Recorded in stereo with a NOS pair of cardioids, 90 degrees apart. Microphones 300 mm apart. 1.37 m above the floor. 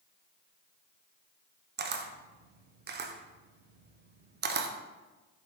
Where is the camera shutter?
35° right, 0.5 m.